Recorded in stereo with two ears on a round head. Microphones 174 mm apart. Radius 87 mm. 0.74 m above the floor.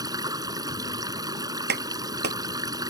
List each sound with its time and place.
0.0 s running water: 20° right (ahead or behind)
1.7 s a clap: 55° right (ahead or behind)